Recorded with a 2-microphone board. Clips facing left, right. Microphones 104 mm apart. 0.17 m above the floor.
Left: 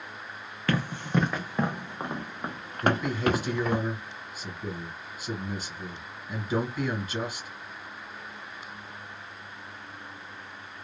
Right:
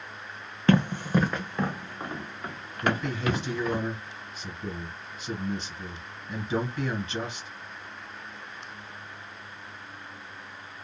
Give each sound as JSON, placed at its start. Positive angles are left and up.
{"t": 0.7, "sound": "running footsteps", "side_deg": -25, "distance_m": 0.7}
{"t": 2.8, "sound": "a man speaking", "side_deg": 5, "distance_m": 1.6}